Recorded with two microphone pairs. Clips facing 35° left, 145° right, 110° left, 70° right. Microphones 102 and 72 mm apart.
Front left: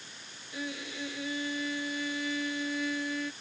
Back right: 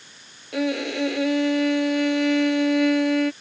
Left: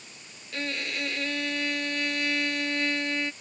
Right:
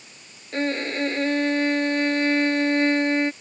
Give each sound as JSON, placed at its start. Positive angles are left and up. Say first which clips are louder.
{"t": 0.5, "sound": "a violin", "louder": "back right 15 dB, right 8 dB", "azimuth_deg": -125}